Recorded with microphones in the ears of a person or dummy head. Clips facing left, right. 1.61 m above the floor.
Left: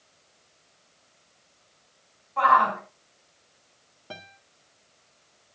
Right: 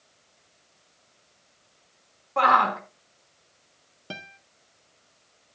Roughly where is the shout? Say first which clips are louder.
Even; right.